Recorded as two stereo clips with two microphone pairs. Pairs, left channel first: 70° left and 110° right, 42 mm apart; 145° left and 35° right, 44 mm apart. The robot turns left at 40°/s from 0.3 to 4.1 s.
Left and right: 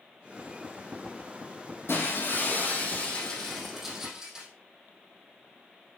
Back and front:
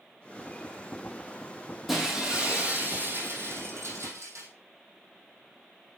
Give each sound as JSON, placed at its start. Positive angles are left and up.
{"t": 1.9, "sound": "breaking glass", "azimuth_deg": 55, "distance_m": 2.5}